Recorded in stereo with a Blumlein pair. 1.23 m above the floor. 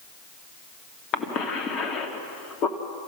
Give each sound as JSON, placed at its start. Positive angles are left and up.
{"t": 1.1, "sound": "a cough", "azimuth_deg": 35, "distance_m": 2.5}